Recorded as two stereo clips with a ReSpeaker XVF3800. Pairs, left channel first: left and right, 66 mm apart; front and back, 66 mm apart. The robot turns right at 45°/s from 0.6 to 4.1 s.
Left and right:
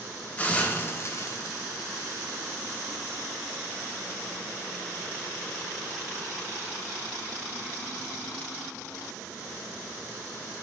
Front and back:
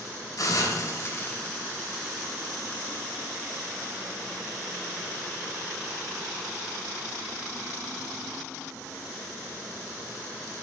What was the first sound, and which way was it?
A hiss, 20° left.